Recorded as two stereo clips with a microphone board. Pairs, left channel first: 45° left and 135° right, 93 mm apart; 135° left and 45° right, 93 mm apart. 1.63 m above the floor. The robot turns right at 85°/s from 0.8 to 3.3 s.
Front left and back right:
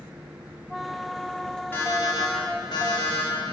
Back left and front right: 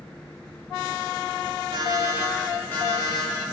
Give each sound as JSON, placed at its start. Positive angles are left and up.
{"t": 1.7, "sound": "an alarm clock", "azimuth_deg": -20, "distance_m": 2.0}